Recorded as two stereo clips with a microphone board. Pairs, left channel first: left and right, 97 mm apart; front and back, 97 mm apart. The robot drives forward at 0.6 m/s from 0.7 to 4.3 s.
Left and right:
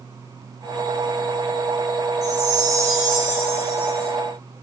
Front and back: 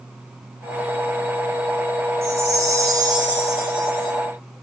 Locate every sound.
2.2 s a chime: 125° right, 1.5 m; by 4.1 s 155° right, 2 m